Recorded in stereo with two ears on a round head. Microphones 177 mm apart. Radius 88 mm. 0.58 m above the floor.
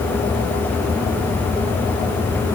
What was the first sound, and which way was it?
Only background noise.